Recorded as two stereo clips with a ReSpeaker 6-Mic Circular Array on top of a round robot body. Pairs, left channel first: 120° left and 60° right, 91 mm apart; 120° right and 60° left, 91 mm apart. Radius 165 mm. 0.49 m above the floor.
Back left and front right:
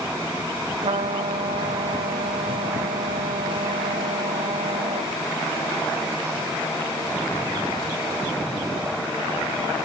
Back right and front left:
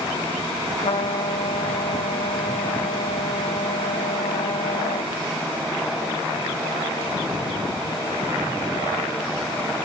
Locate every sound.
0.8 s a trumpet: 85° right, 0.6 m